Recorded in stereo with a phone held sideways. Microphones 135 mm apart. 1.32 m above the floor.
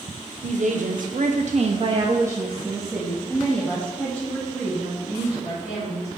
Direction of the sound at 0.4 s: 60° right (ahead or behind).